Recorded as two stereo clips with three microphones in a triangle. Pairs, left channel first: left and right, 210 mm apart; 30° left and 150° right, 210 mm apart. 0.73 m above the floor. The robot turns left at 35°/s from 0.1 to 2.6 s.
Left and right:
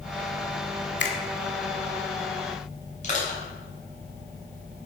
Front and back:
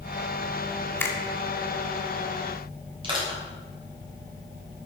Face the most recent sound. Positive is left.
turn(degrees=145)